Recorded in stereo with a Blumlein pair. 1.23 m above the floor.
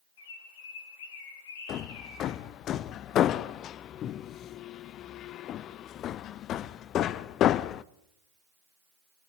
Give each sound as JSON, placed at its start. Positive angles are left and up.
{"t": 0.2, "sound": "a bird", "azimuth_deg": 55, "distance_m": 3.5}
{"t": 1.7, "sound": "hammering", "azimuth_deg": 35, "distance_m": 0.6}